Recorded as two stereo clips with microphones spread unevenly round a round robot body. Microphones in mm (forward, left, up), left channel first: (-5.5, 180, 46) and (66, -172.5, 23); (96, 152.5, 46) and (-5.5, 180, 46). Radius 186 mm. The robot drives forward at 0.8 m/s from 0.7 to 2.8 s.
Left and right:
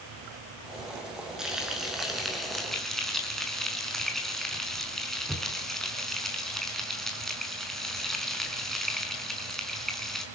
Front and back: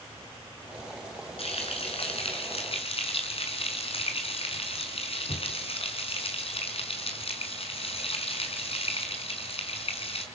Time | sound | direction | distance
1.4 | frying | 10° left | 5.5 m